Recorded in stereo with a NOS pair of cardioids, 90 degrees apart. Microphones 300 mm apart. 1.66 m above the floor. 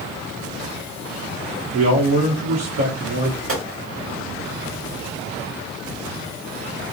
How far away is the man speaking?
About 1.0 m.